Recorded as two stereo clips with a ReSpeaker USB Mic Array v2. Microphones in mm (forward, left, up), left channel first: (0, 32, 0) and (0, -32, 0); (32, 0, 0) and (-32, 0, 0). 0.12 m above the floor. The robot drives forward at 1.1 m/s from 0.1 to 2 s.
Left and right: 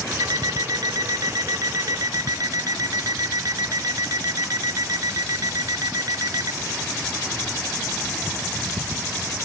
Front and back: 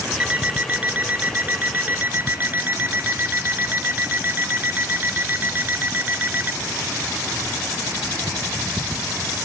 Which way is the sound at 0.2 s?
110° right.